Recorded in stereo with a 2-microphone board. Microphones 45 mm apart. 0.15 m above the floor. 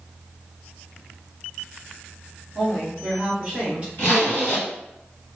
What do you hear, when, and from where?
2.5 s a woman speaking: 5° left (ahead or behind), 2.0 m; by 3.9 s 30° right (ahead or behind), 1.6 m
4.0 s a zipper: 45° left (ahead or behind), 1.9 m